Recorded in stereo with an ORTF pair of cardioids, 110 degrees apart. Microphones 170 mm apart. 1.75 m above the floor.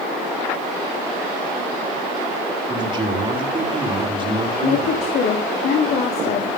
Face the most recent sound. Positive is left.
turn(degrees=65)